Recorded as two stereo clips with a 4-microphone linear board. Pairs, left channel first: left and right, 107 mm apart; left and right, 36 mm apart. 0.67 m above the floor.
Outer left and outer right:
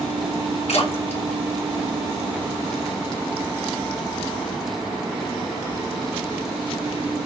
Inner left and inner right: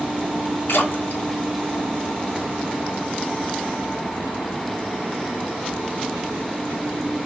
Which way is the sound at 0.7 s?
85° left.